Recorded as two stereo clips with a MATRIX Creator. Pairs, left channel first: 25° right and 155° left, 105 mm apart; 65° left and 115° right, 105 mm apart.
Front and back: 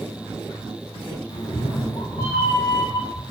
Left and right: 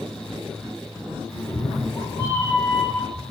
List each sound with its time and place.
1.3 s a cat meowing: straight ahead, 0.7 m